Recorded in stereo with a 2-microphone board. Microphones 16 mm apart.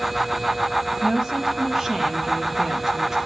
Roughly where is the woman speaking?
Right.